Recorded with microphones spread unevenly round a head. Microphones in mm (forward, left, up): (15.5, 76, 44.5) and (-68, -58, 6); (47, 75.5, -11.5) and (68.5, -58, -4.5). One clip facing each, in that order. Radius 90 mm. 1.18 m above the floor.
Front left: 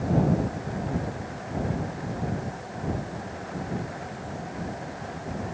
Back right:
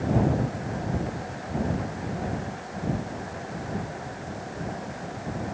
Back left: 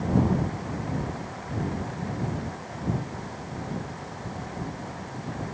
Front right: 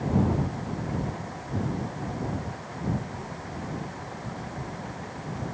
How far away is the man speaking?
I don't hear a man speaking.